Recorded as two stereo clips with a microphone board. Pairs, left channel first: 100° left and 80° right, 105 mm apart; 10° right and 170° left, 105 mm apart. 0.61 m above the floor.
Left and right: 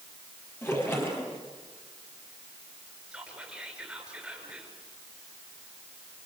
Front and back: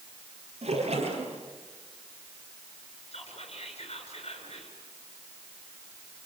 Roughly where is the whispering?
Ahead.